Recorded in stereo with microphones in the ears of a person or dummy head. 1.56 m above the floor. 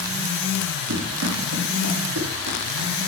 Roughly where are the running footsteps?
Right.